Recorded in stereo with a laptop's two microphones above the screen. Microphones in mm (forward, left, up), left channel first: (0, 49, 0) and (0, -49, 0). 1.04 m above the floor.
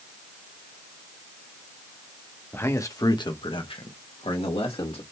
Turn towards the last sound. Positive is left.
turn(degrees=75)  # may be behind; listen again after turning